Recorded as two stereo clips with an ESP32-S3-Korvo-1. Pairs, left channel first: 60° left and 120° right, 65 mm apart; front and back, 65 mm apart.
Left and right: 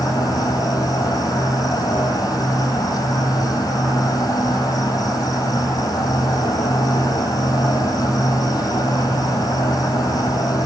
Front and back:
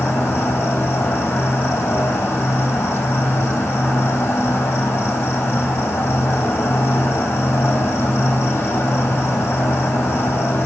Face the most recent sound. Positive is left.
turn(degrees=55)